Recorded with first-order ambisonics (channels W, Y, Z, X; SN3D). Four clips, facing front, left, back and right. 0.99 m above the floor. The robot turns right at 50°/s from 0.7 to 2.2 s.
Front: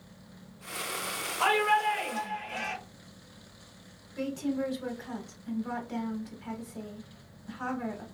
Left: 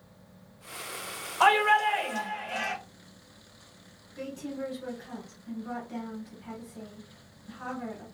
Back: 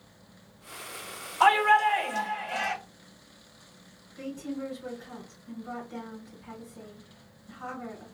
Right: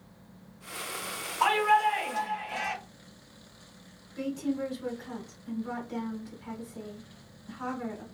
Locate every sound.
1.4 s a shout: 100° left, 1.8 m; by 2.7 s 140° left, 1.8 m
4.2 s a woman speaking: 5° right, 1.3 m